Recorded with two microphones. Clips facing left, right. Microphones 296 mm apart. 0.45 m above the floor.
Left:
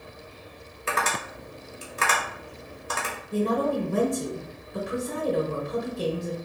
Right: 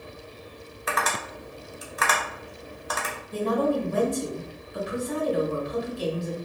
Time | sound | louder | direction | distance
0.9 | tapping | even | 30° left (ahead or behind) | 1.1 m
3.3 | a woman speaking | even | 55° left (ahead or behind) | 1.6 m